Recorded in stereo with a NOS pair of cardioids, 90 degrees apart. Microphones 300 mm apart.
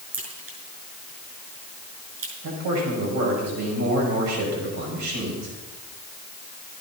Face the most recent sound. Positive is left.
turn(degrees=-65)